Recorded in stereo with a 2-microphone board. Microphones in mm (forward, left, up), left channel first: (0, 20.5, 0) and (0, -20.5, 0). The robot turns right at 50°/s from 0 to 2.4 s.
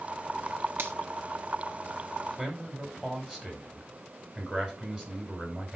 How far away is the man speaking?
About 5.5 m.